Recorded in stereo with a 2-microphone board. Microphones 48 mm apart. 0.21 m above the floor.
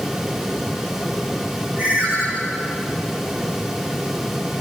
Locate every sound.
1.8 s a ringtone: 35° right (ahead or behind), 10 m